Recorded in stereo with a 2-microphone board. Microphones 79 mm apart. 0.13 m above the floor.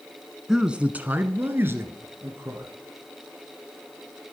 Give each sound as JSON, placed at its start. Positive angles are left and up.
{"t": 0.5, "sound": "a man speaking", "side_deg": -5, "distance_m": 1.0}